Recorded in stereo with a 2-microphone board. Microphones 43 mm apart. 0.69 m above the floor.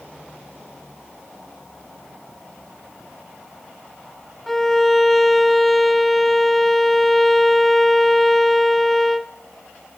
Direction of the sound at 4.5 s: 10° left (ahead or behind).